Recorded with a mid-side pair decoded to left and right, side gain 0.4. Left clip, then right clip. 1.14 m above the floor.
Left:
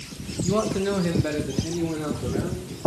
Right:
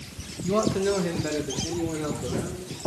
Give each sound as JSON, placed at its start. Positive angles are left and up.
{"t": 0.4, "sound": "a man speaking", "azimuth_deg": -5, "distance_m": 1.3}